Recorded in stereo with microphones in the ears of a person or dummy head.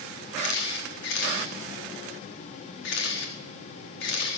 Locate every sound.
0.4 s a camera shutter: 75° left (ahead or behind), 1.9 m